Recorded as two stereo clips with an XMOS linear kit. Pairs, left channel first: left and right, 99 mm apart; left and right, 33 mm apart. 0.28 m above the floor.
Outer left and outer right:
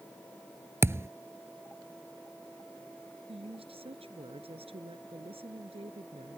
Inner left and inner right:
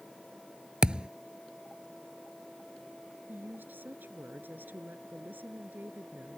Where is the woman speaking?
75° right (ahead or behind).